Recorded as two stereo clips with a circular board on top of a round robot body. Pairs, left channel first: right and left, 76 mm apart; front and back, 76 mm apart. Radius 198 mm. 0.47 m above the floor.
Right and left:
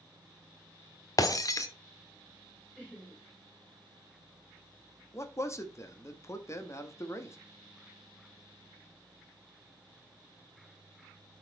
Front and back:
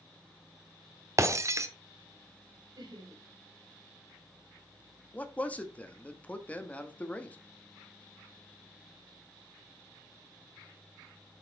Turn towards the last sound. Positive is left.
turn(degrees=-65)